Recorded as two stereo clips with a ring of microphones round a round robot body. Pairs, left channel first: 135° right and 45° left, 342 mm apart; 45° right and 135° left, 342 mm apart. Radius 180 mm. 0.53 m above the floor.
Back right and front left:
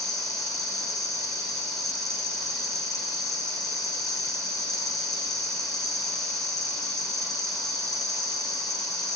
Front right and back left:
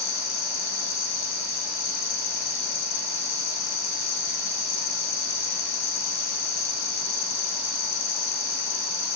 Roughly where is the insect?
Ahead right.